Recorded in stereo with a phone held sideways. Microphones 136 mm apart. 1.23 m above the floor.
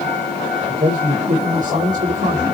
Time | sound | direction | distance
0.7 | a man speaking | 70° right (ahead or behind) | 4.5 m